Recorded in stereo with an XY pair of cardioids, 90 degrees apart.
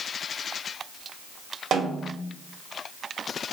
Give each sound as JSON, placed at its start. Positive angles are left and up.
{"t": 1.7, "sound": "a snare drum", "azimuth_deg": -70, "distance_m": 1.6}